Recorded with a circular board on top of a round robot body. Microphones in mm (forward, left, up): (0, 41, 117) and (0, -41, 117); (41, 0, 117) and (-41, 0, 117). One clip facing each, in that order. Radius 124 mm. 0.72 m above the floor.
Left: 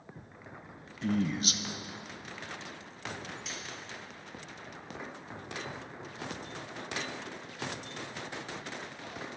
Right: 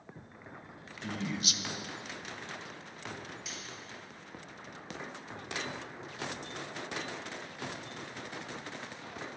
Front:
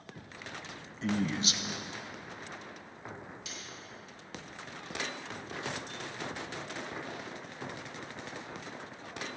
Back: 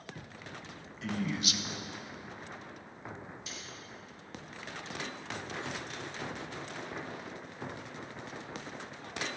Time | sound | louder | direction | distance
1.0 | a man speaking | left 6 dB, front 3 dB | 50° left | 0.7 m
3.5 | cutlery clinking | left 3 dB, even | straight ahead | 2.5 m